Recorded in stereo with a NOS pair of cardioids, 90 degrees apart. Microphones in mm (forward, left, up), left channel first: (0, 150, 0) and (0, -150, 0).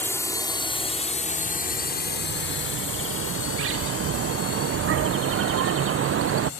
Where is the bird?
45° right.